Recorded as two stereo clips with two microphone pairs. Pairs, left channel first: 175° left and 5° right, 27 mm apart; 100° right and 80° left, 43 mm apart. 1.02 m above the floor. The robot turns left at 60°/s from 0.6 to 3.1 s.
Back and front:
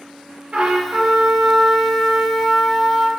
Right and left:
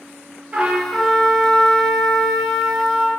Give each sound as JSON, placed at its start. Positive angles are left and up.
{"t": 0.5, "sound": "a trumpet", "azimuth_deg": 15, "distance_m": 0.7}